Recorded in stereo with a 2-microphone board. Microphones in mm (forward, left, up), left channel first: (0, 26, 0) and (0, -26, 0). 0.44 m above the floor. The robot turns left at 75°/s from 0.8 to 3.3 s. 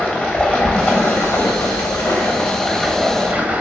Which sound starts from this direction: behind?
Running water, at 0.0 s.